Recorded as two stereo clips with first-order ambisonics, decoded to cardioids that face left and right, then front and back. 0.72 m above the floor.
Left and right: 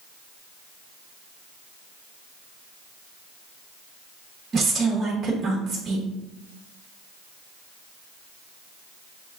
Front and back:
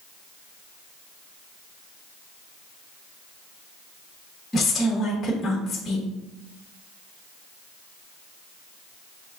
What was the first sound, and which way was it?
A woman speaking, 65° right.